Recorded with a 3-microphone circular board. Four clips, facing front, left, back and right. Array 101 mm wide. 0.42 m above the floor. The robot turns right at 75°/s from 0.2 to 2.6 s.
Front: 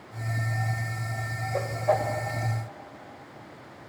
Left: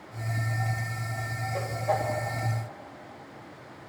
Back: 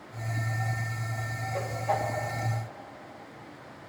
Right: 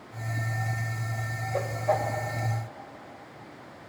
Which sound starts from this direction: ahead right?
A whoosh, at 1.5 s.